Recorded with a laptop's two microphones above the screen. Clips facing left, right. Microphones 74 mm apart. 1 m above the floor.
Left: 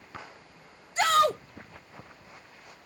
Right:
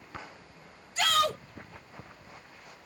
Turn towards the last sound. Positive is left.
turn(degrees=35)  # may be behind; listen again after turning